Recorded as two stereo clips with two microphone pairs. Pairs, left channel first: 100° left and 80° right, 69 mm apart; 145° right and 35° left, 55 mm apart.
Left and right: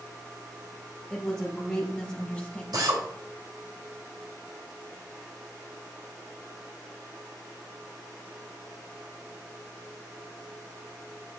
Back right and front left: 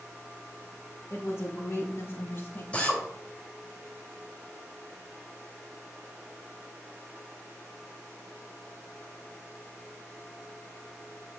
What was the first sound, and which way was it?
A woman speaking, straight behind.